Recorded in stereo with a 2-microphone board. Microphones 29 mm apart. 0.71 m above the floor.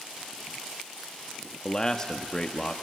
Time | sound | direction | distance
1.6 | a man speaking | 25° left (ahead or behind) | 0.8 m